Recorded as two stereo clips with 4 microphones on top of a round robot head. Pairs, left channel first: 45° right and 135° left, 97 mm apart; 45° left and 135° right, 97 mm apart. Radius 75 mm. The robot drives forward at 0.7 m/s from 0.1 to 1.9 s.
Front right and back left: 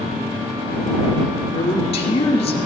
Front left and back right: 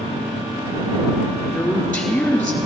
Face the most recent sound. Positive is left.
turn(degrees=-40)